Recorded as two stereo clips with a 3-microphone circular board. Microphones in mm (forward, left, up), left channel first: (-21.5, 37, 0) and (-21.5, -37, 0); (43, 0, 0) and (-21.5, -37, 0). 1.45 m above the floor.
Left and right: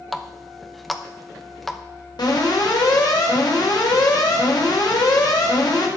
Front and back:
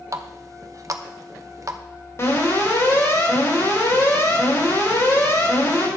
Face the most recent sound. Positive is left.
turn(degrees=80)